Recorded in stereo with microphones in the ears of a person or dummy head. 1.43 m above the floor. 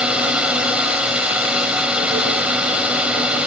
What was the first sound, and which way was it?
A drone, 10° right (ahead or behind).